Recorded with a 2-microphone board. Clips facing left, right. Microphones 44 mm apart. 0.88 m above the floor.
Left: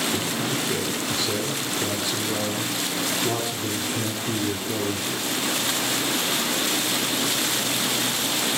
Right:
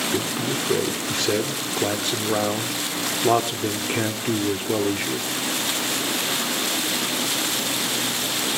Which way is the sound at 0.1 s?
65° right (ahead or behind).